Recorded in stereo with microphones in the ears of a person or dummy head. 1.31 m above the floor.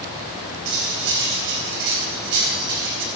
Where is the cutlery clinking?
65° right (ahead or behind), 4 m.